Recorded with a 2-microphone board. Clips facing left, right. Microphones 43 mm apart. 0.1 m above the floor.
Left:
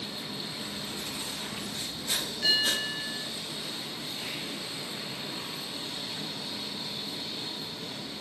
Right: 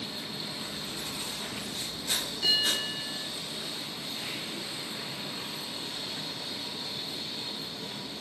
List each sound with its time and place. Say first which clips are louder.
0.6 s writing: even; 5° right (ahead or behind), 5 m
2.4 s a bell: left 1 dB; 35° left (ahead or behind), 3 m